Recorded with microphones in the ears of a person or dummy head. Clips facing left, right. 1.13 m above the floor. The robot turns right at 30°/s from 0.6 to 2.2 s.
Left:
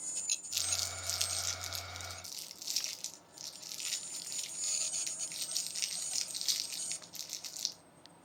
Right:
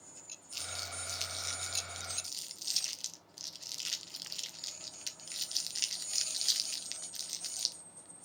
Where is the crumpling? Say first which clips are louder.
Right 1 dB; 20° left (ahead or behind), 0.5 m; by 7.8 s 10° right (ahead or behind), 0.5 m.